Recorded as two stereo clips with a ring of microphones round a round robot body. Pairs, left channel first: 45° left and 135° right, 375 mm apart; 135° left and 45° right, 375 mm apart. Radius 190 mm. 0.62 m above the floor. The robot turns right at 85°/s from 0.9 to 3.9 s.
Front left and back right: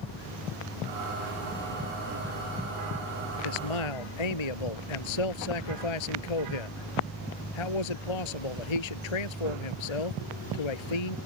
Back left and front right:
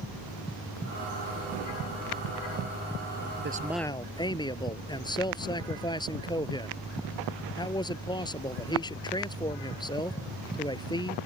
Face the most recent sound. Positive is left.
turn(degrees=55)